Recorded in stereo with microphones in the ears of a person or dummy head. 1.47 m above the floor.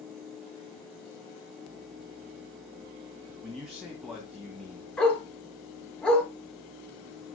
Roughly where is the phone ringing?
No phone ringing in this recording.